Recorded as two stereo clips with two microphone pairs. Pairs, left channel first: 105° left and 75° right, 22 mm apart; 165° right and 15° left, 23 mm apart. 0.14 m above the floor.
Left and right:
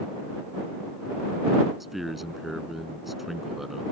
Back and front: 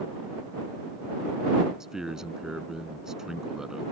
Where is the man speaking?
5° right.